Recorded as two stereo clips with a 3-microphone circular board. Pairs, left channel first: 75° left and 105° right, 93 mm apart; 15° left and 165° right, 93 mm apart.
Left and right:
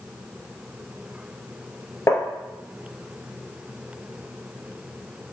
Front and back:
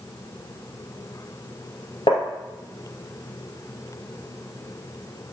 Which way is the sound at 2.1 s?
15° left.